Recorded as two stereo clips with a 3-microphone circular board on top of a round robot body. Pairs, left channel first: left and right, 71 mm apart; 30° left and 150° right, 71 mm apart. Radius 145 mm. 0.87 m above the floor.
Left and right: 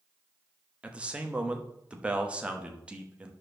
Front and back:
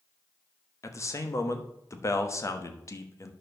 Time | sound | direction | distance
0.8 | a man speaking | 15° right | 1.4 m